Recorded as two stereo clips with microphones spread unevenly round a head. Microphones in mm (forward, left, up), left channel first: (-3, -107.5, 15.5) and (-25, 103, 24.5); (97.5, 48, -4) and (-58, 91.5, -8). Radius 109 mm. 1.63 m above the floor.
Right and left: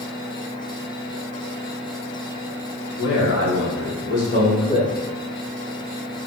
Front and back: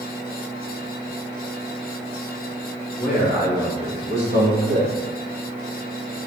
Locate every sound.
3.0 s a man speaking: 105° right, 3.5 m; by 4.9 s 155° right, 3 m